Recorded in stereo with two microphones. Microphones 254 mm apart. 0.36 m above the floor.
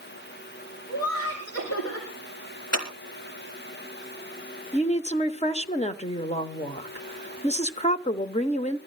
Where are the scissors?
80° left, 4 m.